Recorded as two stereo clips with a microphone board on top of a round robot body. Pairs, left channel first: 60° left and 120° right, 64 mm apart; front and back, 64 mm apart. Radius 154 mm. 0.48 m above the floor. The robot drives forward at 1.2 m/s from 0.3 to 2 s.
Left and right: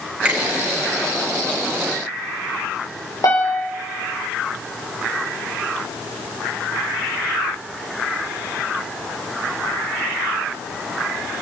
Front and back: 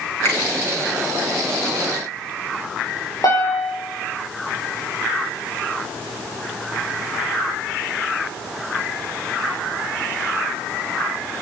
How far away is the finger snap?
About 7.5 m.